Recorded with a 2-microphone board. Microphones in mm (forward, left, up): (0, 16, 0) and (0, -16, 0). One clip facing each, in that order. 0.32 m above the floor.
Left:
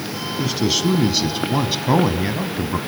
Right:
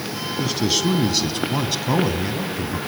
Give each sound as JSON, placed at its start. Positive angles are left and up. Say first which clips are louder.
{"t": 0.4, "sound": "a man speaking", "louder": "left 1 dB", "side_deg": 0, "distance_m": 2.5}